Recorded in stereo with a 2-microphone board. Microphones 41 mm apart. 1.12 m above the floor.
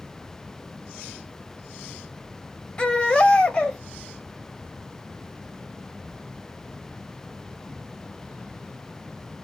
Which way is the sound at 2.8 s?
25° left (ahead or behind).